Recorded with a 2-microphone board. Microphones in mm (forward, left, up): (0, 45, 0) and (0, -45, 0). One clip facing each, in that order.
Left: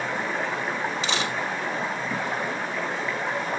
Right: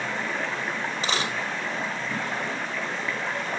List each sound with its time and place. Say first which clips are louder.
0.0 s running water: left 2 dB; 15° left (ahead or behind), 2 m
1.0 s a dropped coin: left 1 dB; 40° right (ahead or behind), 2.5 m